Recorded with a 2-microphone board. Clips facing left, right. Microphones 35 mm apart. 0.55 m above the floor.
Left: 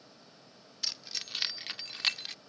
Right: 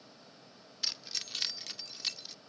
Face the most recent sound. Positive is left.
turn(degrees=60)  # may be behind; listen again after turning